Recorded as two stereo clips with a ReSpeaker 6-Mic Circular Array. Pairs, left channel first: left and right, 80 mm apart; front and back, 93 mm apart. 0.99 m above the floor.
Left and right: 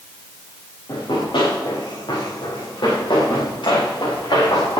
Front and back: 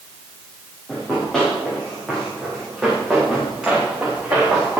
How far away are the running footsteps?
About 8 m.